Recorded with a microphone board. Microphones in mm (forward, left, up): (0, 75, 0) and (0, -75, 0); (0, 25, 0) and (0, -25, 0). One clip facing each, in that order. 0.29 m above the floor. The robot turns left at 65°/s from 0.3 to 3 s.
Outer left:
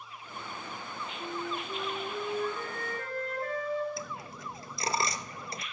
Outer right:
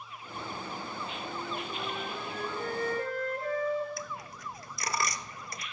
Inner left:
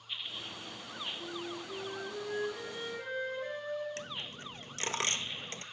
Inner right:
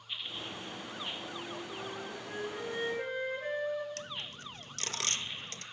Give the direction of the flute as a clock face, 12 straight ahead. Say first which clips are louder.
Outer left 4 dB, even; 9 o'clock.